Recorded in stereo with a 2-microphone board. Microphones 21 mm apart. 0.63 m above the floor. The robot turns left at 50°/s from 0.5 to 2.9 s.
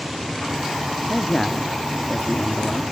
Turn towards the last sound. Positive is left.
turn(degrees=100)